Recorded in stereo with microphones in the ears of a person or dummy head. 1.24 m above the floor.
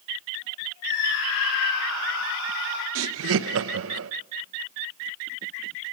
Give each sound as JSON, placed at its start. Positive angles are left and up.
{"t": 0.8, "sound": "a scream", "side_deg": 60, "distance_m": 4.5}
{"t": 3.0, "sound": "laughter", "side_deg": -75, "distance_m": 1.2}